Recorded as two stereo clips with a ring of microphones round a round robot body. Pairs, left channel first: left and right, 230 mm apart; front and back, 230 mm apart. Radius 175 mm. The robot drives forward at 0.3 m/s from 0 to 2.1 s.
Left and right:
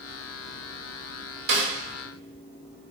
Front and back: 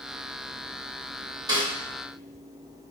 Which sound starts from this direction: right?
A snare drum, at 1.5 s.